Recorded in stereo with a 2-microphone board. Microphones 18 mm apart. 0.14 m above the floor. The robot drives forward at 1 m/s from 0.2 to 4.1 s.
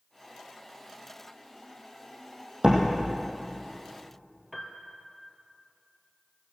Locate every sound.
2.6 s a door slam: 45° right (ahead or behind), 4.5 m
4.5 s a piano: 5° right (ahead or behind), 2 m